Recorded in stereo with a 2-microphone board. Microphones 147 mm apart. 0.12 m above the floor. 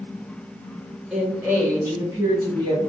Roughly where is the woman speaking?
Centre.